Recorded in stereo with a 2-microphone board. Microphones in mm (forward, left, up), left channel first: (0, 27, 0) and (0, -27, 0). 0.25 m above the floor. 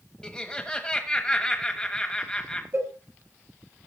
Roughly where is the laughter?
Centre.